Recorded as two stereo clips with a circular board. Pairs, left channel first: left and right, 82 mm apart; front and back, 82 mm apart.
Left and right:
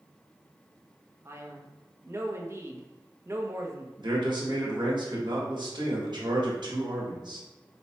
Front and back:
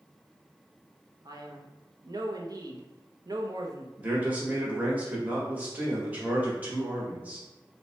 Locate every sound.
1.2 s a man speaking: 145° right, 0.6 m
4.0 s a man speaking: 110° right, 1.1 m